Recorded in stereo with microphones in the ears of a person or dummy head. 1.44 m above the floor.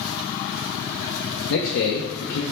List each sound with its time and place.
1.5 s a man speaking: 70° left (ahead or behind), 0.6 m